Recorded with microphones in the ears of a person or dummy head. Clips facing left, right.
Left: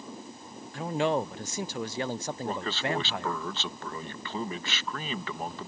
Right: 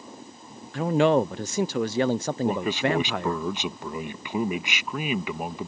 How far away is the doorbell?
I don't hear a doorbell.